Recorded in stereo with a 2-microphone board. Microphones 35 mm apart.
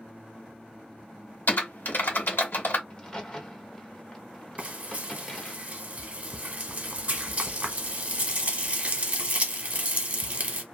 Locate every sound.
1.5 s typing on a keyboard: 65° left (ahead or behind), 1.1 m
2.9 s a crack: 20° left (ahead or behind), 0.9 m
4.6 s frying: 40° right (ahead or behind), 0.9 m